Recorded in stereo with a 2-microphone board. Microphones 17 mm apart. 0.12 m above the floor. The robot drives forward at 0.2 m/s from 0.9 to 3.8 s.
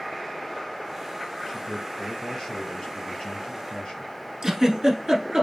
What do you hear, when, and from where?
1.4 s a man speaking: 60° left (ahead or behind), 2.5 m
4.4 s a giggle: 40° right (ahead or behind), 1.8 m